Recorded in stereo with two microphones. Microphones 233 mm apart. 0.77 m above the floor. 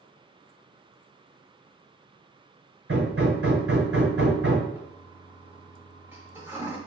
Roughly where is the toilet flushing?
Centre.